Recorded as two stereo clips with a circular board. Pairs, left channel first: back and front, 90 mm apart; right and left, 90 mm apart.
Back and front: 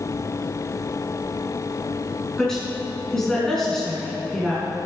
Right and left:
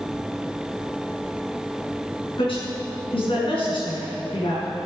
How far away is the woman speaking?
About 5 m.